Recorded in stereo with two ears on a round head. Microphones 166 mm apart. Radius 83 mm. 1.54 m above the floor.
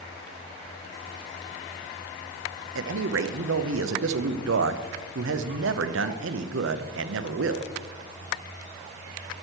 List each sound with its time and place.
2.8 s a man speaking: 70° right (ahead or behind), 0.6 m